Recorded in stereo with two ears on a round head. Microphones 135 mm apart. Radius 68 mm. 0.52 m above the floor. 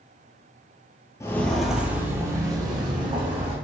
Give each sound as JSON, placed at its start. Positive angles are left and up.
{"t": 1.2, "sound": "footsteps", "side_deg": 20, "distance_m": 0.5}